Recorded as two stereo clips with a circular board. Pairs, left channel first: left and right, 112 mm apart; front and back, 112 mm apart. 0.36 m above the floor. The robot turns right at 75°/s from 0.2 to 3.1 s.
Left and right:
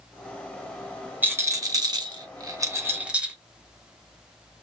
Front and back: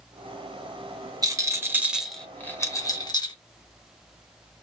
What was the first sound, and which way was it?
A rattle, 155° right.